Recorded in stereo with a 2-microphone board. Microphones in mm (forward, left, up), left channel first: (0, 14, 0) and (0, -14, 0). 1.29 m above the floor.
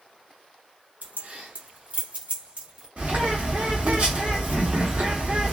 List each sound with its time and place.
1.0 s keys jangling: 65° right (ahead or behind), 0.7 m; by 2.9 s 35° right (ahead or behind), 1.2 m
3.0 s a bird: 50° right (ahead or behind), 1.1 m